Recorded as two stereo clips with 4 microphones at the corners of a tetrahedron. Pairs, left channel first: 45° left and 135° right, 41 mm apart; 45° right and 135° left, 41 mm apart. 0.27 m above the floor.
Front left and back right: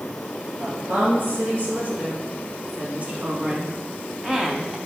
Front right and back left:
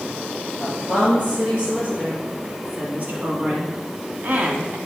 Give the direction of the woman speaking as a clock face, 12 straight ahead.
6 o'clock.